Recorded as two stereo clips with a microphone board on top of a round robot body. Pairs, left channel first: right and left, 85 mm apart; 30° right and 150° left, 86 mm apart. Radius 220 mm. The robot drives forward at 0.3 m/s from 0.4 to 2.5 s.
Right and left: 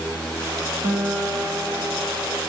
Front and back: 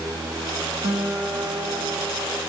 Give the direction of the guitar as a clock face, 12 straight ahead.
7 o'clock.